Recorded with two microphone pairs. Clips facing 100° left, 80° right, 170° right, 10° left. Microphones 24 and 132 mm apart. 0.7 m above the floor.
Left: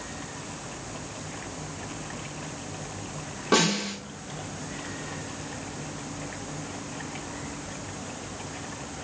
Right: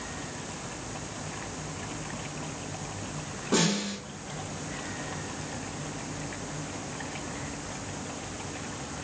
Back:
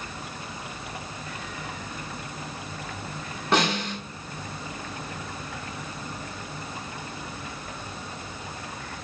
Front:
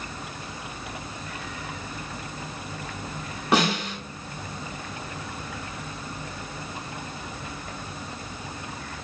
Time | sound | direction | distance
3.5 | a snare drum | 90° left | 1.9 m